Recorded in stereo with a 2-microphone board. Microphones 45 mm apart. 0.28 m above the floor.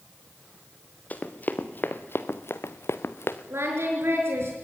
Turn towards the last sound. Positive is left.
turn(degrees=-70)  # may be behind; listen again after turning